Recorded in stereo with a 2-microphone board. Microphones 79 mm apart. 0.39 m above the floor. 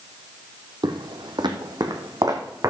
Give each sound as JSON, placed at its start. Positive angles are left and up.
{"t": 0.8, "sound": "footsteps", "side_deg": -70, "distance_m": 1.0}